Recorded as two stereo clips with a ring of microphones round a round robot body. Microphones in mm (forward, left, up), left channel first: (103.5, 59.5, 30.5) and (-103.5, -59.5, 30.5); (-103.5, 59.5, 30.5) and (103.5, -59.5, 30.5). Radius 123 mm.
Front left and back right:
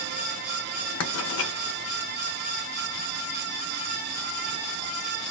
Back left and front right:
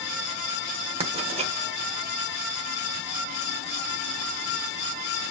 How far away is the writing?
About 1.2 m.